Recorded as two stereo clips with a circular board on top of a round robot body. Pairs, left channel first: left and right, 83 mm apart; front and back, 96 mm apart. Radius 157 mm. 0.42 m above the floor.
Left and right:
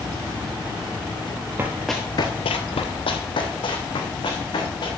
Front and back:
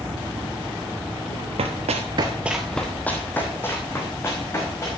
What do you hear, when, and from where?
1.6 s running footsteps: 160° right, 0.9 m; by 4.9 s 65° left, 4 m